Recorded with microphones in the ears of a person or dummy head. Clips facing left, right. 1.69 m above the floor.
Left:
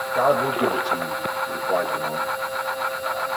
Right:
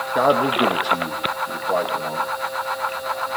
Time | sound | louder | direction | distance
0.1 | a man speaking | right 2 dB | 35° right (ahead or behind) | 3 m